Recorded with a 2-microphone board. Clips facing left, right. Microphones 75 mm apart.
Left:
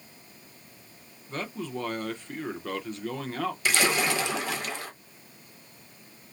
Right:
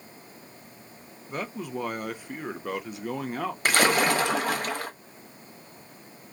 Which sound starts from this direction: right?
A splash, at 3.6 s.